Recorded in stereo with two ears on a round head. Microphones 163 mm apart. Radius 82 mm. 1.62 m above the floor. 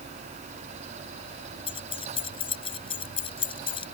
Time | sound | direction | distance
1.7 | keys jangling | 30° left (ahead or behind) | ?